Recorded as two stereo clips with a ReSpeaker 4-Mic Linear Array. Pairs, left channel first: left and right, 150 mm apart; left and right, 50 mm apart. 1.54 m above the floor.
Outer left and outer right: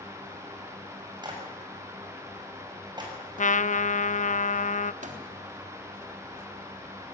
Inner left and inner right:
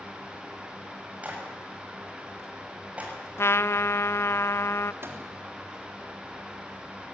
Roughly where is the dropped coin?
I don't hear a dropped coin.